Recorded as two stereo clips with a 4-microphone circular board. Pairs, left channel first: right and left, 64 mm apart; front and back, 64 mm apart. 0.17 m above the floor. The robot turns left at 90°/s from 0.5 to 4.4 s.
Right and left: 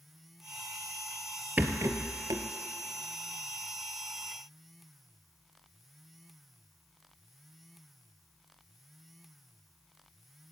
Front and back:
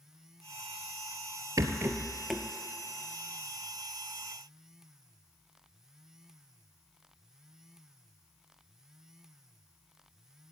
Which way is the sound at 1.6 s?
155° left.